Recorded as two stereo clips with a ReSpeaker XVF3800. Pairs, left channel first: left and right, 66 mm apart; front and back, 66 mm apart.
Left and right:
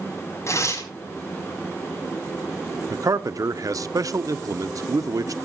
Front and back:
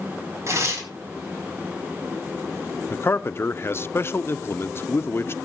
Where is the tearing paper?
135° left, 4.5 m.